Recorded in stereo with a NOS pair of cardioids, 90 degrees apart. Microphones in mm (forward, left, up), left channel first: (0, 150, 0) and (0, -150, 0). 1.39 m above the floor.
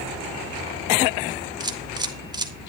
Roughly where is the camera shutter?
Ahead.